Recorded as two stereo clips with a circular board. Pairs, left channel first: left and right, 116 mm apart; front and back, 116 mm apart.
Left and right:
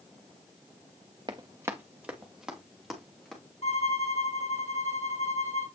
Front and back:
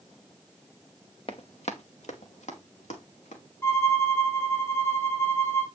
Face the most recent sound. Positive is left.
turn(degrees=70)